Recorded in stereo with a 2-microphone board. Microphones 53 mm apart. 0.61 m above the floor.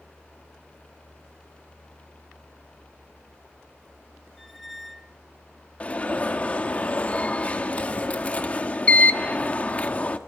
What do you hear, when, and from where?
4.4 s a squeak: centre (ahead or behind), 0.5 m
5.8 s an alarm: 25° left (ahead or behind), 1.3 m